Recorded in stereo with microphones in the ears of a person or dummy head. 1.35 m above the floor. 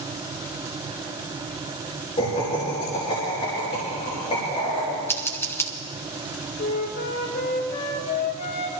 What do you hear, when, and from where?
2.2 s laughter: 25° left (ahead or behind), 2.5 m
5.1 s scissors: 5° left (ahead or behind), 0.9 m
6.6 s a flute: 55° left (ahead or behind), 2 m